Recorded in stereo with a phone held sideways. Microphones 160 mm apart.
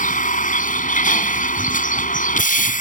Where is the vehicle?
55° left (ahead or behind).